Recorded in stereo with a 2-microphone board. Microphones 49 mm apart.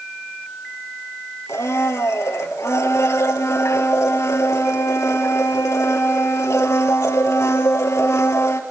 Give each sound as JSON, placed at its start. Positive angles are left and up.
{"t": 1.5, "sound": "a blender", "side_deg": 80, "distance_m": 1.6}